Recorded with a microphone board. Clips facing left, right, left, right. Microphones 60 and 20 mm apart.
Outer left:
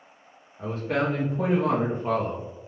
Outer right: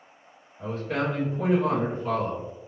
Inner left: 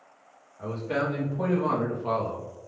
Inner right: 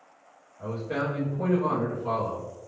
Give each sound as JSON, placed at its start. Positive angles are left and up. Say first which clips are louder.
{"t": 0.6, "sound": "a man speaking", "louder": "outer left 2 dB, inner left 1 dB", "side_deg": 75, "distance_m": 1.2}